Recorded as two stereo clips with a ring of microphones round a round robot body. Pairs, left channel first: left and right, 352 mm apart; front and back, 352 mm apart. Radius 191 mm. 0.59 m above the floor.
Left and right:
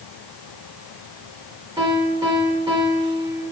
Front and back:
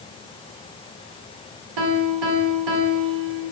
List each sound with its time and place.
1.8 s a piano: 170° right, 1.5 m